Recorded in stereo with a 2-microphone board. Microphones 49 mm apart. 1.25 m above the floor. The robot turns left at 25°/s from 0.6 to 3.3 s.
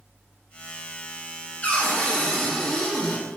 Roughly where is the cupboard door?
Ahead left.